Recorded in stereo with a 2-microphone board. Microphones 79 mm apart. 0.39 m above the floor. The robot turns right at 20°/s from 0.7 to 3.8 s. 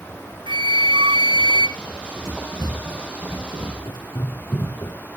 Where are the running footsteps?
25° left (ahead or behind), 4 m; by 5.0 s 65° left (ahead or behind), 2.5 m.